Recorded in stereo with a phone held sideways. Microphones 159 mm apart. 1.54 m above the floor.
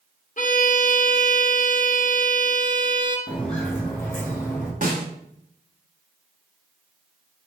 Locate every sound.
0.4 s a violin: 50° left (ahead or behind), 1.4 m
3.3 s footsteps: 5° left (ahead or behind), 2 m; by 4.7 s 20° left (ahead or behind), 3 m
4.8 s a snare drum: 60° right (ahead or behind), 1.5 m